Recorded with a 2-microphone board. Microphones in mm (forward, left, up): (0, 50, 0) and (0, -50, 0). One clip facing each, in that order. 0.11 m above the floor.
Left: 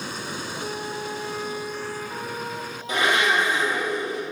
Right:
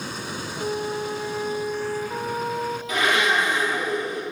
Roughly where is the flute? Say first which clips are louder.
Right 7 dB; centre.